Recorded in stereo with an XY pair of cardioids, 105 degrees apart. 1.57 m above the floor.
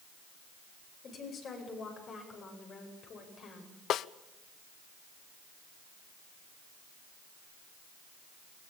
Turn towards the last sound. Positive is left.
turn(degrees=70)